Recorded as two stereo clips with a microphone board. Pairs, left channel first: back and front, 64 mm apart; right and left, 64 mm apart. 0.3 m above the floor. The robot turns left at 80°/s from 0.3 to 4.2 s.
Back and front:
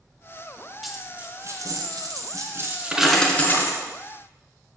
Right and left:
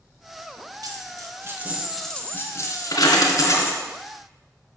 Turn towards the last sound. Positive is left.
turn(degrees=180)